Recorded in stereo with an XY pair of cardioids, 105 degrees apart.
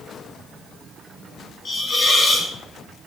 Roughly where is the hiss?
Ahead left.